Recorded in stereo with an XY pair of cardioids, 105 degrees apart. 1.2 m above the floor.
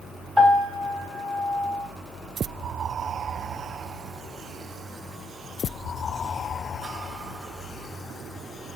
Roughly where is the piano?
Ahead right.